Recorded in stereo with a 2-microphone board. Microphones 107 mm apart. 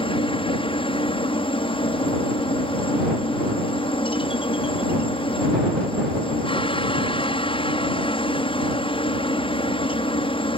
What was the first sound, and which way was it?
A helicopter, 55° left (ahead or behind).